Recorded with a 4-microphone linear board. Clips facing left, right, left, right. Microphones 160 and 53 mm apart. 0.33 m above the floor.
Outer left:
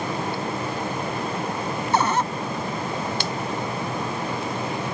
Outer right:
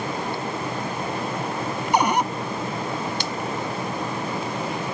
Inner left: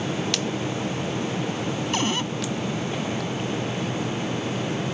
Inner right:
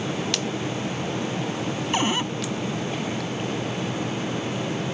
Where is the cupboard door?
15° right (ahead or behind).